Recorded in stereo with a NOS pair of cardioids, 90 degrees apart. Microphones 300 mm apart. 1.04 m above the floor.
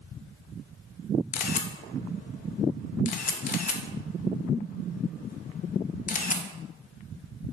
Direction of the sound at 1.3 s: 30° left.